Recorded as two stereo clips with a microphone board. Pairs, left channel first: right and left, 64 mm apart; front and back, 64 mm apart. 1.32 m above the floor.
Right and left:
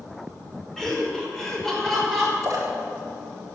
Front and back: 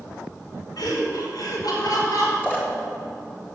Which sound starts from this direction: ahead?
Laughter, at 0.8 s.